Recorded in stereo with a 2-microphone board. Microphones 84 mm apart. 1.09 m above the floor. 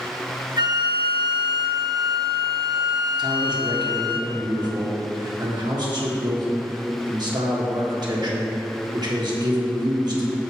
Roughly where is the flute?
Right.